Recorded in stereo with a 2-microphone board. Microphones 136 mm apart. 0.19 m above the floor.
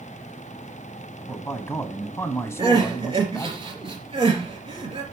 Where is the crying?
40° right (ahead or behind), 3.5 m.